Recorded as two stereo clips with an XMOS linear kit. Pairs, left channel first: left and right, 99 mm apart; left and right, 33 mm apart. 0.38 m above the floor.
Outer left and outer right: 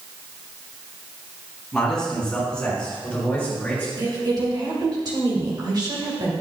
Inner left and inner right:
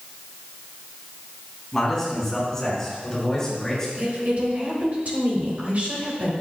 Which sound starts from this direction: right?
A woman speaking, at 4.0 s.